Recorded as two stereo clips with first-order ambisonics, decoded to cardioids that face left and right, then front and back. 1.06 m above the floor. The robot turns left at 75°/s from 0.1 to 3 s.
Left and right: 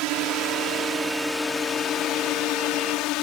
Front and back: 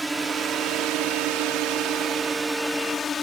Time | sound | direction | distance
0.0 | a drone | 100° right | ?